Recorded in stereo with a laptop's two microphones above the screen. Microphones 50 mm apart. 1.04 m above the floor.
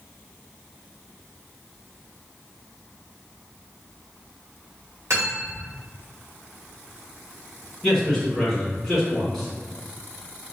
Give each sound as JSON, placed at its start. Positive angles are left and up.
{"t": 5.1, "sound": "cutlery clinking", "side_deg": -65, "distance_m": 1.4}
{"t": 7.8, "sound": "a man speaking", "side_deg": 5, "distance_m": 1.4}